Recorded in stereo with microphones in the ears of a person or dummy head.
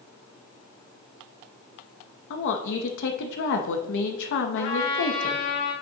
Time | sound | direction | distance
2.3 | a woman speaking | 65° left (ahead or behind) | 0.7 m
4.6 | a trumpet | 50° left (ahead or behind) | 2.5 m